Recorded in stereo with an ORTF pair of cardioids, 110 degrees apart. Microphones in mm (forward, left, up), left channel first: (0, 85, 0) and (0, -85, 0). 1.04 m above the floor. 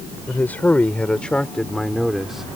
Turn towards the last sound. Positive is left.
turn(degrees=-5)